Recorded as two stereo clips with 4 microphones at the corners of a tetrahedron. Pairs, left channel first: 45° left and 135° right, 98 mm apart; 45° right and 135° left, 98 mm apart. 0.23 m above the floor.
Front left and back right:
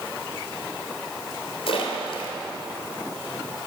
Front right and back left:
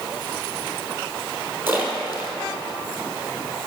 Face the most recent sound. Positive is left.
turn(degrees=70)